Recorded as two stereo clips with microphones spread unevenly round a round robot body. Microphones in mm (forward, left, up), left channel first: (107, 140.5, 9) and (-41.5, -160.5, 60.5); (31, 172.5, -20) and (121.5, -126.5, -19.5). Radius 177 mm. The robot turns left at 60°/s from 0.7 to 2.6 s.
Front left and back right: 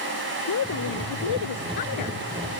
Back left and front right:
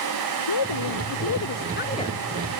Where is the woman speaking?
115° left; by 2.2 s 25° left.